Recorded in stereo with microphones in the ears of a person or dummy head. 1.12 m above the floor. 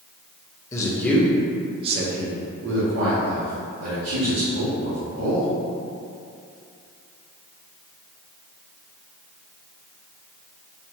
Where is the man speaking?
15° left (ahead or behind), 0.8 m; by 5.5 s 70° right (ahead or behind), 2 m.